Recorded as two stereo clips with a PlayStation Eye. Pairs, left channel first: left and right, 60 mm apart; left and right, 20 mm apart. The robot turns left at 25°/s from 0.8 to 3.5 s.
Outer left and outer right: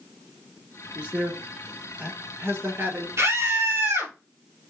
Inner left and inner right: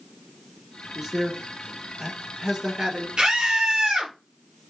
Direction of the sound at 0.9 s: 20° right (ahead or behind).